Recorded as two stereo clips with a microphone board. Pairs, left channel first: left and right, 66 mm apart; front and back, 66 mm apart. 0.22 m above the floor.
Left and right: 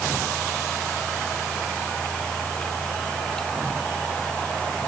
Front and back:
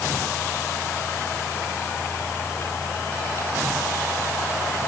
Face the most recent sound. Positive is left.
No sound to turn to.